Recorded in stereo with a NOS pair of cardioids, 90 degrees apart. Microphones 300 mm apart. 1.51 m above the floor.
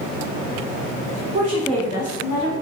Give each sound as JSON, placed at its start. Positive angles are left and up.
{"t": 1.3, "sound": "a woman speaking", "azimuth_deg": -30, "distance_m": 0.8}